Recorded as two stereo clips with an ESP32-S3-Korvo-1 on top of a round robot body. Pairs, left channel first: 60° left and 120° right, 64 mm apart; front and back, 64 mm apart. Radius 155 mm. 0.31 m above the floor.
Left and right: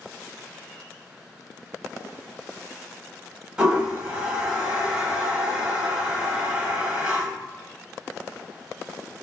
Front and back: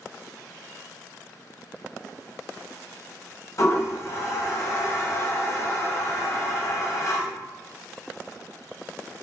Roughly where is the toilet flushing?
Ahead right.